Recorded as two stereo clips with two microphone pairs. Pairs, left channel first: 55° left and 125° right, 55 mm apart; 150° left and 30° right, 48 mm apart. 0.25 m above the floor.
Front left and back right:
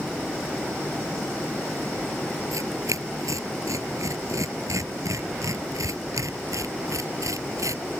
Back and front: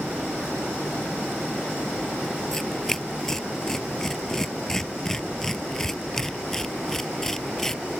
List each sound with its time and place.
2.5 s tearing paper: 130° right